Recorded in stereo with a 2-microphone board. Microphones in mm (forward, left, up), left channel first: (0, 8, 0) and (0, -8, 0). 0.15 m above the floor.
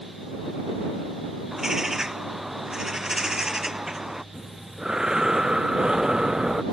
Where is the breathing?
40° right (ahead or behind).